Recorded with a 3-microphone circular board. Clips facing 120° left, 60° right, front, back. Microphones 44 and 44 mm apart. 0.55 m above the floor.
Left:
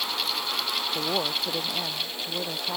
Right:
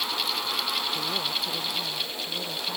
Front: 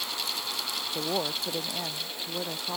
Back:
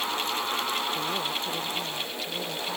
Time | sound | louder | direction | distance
0.9 | a woman speaking | left 2 dB, back 1 dB | 65° left | ?